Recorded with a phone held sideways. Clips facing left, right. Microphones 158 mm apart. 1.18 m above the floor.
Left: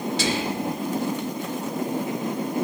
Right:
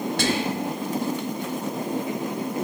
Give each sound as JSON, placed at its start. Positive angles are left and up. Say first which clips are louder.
{"t": 0.2, "sound": "whispering", "louder": "right 2 dB", "side_deg": -60, "distance_m": 1.0}